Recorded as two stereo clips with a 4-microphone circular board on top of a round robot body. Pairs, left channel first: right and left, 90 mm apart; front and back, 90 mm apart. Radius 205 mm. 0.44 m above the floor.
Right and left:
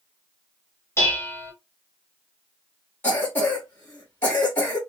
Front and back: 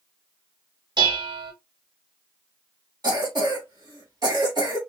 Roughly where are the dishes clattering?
Behind right.